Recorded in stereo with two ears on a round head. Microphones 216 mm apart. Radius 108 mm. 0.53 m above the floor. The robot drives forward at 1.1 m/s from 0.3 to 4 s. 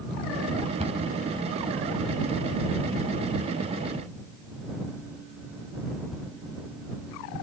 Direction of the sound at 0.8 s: 25° right (ahead or behind).